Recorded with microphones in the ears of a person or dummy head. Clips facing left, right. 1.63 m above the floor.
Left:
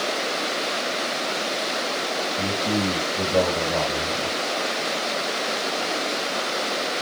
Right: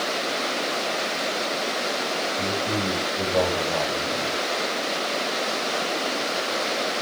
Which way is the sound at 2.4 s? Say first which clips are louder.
Left 4 dB; 30° left (ahead or behind).